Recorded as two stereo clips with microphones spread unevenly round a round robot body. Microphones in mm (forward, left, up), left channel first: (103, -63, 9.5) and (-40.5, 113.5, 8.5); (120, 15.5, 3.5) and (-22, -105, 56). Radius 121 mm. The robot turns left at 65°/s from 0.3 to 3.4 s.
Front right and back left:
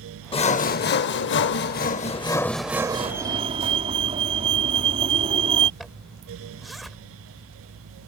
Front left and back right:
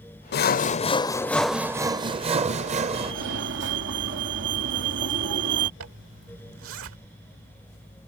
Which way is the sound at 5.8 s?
140° right.